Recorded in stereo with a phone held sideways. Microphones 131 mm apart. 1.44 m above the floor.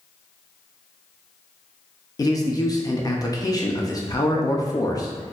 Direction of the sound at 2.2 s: 30° left (ahead or behind).